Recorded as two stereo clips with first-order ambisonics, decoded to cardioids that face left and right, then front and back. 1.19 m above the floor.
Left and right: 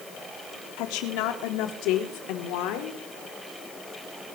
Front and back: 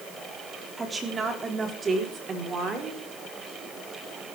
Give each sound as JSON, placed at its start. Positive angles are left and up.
{"t": 0.8, "sound": "a woman speaking", "azimuth_deg": 105, "distance_m": 3.5}